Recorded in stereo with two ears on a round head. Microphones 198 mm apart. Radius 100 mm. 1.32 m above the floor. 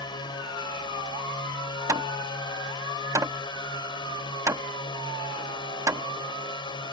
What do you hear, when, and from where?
0.0 s a drone: 20° left (ahead or behind)
1.9 s hammering: 15° right (ahead or behind)